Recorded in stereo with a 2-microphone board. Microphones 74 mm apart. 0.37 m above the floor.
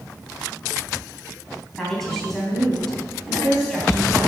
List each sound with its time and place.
1.8 s a woman speaking: 5° left (ahead or behind), 3 m